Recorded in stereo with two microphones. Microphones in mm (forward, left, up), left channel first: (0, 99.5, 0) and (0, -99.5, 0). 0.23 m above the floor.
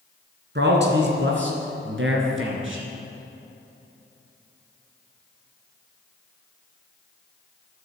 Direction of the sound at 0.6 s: 60° right (ahead or behind).